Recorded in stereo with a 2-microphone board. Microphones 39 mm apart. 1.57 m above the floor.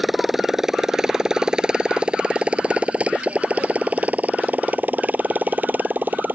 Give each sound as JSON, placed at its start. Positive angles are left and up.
{"t": 0.0, "sound": "a motorcycle", "side_deg": -5}